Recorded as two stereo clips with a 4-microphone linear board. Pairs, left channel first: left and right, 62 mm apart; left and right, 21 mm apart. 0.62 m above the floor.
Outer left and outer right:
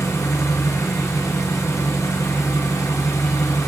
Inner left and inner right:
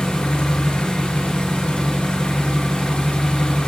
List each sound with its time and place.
0.0 s an engine running: 55° left (ahead or behind), 3 m